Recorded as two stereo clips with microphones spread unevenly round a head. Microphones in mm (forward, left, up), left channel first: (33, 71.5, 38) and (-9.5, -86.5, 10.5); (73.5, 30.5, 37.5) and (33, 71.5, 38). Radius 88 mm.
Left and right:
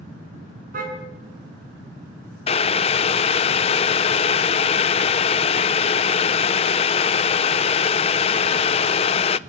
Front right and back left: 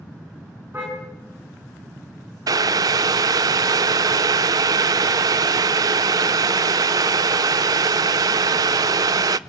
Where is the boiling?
130° left, 0.6 m.